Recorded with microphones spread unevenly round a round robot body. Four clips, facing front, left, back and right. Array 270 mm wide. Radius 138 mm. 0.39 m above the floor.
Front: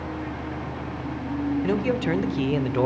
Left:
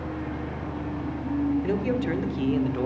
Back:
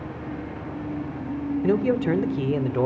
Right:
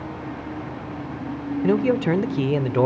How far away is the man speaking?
About 1.3 m.